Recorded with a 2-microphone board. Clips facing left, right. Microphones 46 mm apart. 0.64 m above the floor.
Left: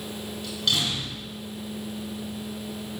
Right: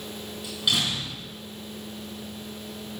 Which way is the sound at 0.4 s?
10° right (ahead or behind).